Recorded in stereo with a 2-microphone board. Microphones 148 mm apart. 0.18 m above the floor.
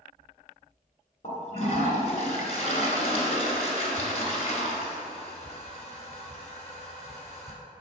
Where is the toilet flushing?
40° left (ahead or behind), 1.7 m.